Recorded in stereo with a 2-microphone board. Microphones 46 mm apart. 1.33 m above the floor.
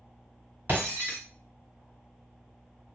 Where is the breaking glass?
50° right (ahead or behind), 1.7 m.